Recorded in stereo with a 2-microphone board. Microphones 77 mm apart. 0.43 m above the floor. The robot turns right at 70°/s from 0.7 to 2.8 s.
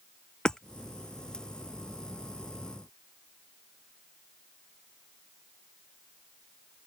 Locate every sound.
0.5 s hammering: 10° left (ahead or behind)